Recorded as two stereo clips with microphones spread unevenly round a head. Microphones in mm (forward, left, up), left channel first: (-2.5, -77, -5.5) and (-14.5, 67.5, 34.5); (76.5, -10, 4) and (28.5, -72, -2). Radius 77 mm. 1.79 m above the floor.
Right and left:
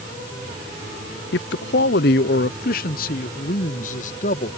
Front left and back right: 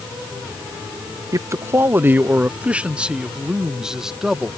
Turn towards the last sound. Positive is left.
turn(degrees=-45)